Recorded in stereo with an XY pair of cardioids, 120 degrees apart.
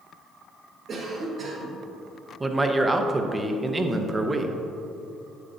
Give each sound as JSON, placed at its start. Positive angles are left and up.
{"t": 0.9, "sound": "a cough", "azimuth_deg": -55, "distance_m": 1.7}
{"t": 2.4, "sound": "a man speaking", "azimuth_deg": -15, "distance_m": 0.8}